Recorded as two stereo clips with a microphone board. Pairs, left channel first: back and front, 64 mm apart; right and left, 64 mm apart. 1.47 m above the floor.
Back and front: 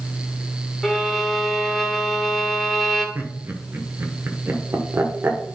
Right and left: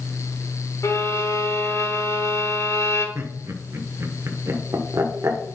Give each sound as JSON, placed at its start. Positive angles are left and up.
{"t": 0.8, "sound": "a violin", "azimuth_deg": -90, "distance_m": 1.6}
{"t": 3.1, "sound": "laughter", "azimuth_deg": 50, "distance_m": 1.4}